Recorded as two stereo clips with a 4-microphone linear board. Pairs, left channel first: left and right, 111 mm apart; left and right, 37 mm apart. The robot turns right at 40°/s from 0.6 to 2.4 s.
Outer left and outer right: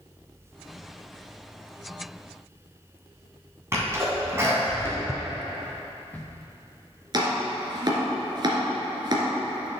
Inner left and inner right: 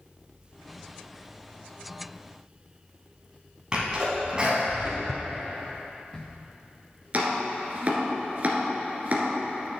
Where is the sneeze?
25° right (ahead or behind), 2 m.